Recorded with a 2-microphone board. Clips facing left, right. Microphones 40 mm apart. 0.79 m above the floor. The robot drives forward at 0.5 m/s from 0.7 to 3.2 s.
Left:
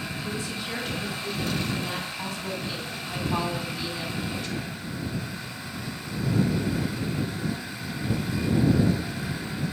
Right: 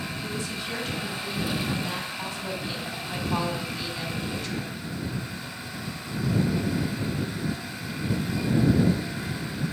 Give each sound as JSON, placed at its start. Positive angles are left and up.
{"t": 0.2, "sound": "a woman speaking", "side_deg": -15, "distance_m": 2.5}